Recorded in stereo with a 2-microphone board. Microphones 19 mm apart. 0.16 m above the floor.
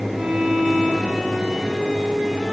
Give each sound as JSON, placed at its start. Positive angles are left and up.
{"t": 0.1, "sound": "a violin", "side_deg": -45, "distance_m": 9.5}